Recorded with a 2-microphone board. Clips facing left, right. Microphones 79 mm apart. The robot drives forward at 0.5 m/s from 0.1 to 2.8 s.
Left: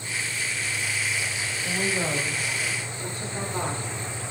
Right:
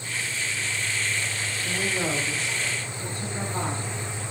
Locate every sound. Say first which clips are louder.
1.6 s a woman speaking: left 1 dB; 20° left (ahead or behind), 4.5 m